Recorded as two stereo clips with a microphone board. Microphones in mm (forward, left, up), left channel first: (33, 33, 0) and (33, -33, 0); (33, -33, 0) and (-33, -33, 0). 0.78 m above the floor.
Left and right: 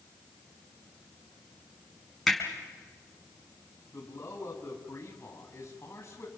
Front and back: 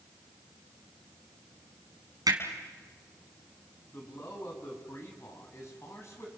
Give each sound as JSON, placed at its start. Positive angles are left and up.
{"t": 2.3, "sound": "hammering", "azimuth_deg": 180, "distance_m": 5.0}
{"t": 3.9, "sound": "a man speaking", "azimuth_deg": 45, "distance_m": 7.0}